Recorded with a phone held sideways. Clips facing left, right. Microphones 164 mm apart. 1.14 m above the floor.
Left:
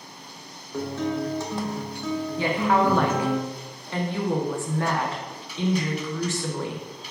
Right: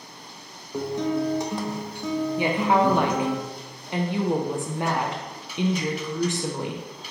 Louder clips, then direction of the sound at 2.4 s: Even; 20° right (ahead or behind).